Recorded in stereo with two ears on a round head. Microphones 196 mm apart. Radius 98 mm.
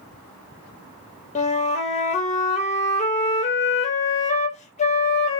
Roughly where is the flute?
Left.